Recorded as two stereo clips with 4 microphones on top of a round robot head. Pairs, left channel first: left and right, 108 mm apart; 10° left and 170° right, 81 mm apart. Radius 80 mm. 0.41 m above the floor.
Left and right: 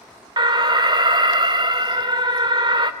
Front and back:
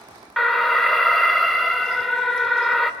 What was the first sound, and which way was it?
An alarm, 80° right.